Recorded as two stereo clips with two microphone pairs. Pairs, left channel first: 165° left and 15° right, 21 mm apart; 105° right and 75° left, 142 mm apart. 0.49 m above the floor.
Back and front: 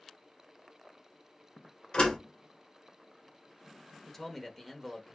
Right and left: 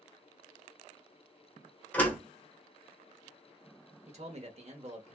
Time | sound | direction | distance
1.9 | a door slam | straight behind | 1.4 m
4.1 | a man speaking | 90° left | 1.1 m